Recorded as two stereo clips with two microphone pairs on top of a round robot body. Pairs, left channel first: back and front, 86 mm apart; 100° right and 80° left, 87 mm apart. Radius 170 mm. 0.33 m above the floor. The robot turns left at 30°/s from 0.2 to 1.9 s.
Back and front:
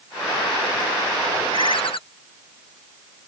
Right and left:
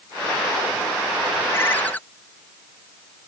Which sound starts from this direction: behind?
A ringtone, at 1.5 s.